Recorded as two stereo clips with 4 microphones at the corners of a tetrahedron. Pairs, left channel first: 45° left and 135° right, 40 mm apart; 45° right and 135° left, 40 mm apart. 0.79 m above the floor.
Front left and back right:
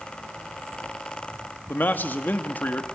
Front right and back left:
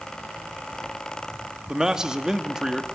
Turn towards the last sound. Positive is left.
turn(degrees=65)